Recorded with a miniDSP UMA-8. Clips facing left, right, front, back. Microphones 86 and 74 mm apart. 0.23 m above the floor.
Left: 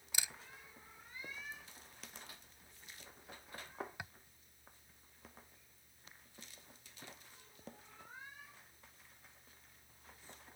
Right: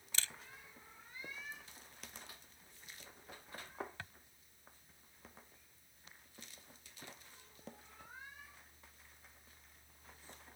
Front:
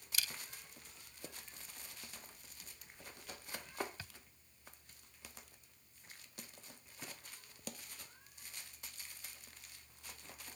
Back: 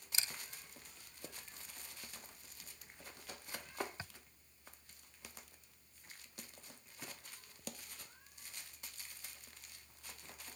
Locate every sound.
0.1 s a camera shutter: 150° left